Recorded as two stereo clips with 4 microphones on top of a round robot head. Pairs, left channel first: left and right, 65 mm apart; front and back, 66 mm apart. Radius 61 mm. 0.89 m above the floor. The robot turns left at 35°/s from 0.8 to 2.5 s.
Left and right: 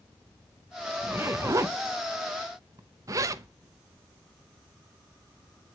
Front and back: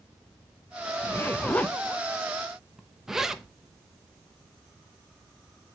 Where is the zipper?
45° right, 0.7 m; by 3.5 s 100° right, 0.7 m.